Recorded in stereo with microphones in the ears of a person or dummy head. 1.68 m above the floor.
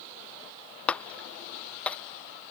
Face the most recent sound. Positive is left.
turn(degrees=10)  # may be behind; listen again after turning